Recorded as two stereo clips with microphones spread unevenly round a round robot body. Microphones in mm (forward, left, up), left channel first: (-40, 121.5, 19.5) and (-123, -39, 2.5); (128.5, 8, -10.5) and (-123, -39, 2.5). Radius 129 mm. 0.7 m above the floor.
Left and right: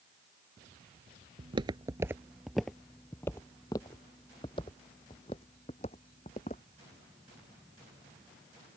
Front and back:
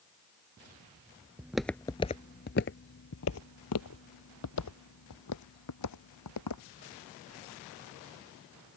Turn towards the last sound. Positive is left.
turn(degrees=0)